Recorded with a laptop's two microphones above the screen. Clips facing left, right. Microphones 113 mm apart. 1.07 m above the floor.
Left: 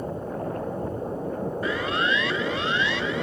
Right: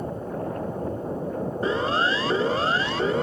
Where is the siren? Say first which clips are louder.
Right 4 dB; 30° right (ahead or behind); by 3.2 s 40° right (ahead or behind).